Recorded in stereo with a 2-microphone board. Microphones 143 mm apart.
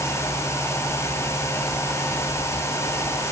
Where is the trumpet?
I don't hear a trumpet.